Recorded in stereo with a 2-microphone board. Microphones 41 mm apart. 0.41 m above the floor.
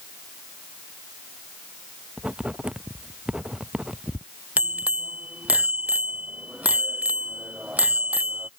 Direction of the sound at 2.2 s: 25° right (ahead or behind).